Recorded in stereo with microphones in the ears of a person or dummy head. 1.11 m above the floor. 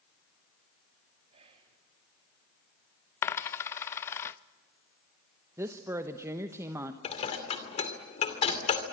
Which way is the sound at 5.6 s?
15° right (ahead or behind).